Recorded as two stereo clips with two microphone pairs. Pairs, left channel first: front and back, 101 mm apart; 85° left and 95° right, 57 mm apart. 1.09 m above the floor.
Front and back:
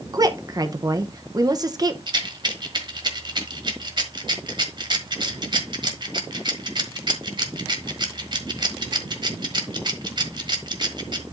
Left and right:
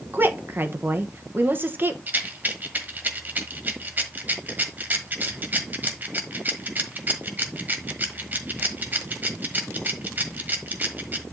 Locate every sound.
0.1 s a woman speaking: 140° right, 0.9 m
2.1 s a rattle: 150° right, 1.4 m